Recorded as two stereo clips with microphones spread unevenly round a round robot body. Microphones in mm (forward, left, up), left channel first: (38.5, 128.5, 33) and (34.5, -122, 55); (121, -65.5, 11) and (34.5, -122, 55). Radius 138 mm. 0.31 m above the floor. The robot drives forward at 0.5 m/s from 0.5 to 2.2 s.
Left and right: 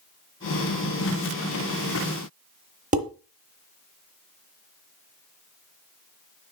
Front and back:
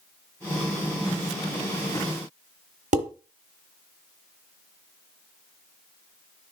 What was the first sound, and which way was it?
Dishes clattering, 150° right.